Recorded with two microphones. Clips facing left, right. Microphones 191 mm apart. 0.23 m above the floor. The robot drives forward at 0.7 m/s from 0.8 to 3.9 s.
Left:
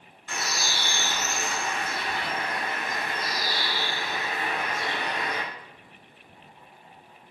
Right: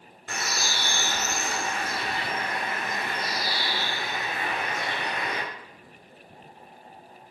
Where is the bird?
45° right (ahead or behind), 1.7 m; by 5.4 s 20° right (ahead or behind), 3.5 m.